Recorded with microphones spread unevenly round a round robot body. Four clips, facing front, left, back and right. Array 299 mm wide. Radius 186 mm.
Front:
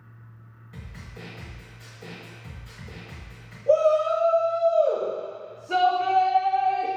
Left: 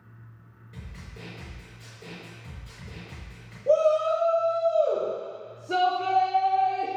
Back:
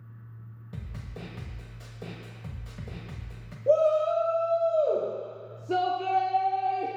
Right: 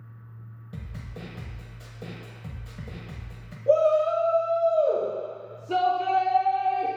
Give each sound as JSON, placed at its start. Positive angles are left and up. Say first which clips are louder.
{"t": 0.7, "sound": "a snare drum", "louder": "right 4 dB, back 1 dB", "azimuth_deg": -110, "distance_m": 0.9}
{"t": 3.7, "sound": "a shout", "louder": "right 1 dB, front 3 dB", "azimuth_deg": 165, "distance_m": 0.8}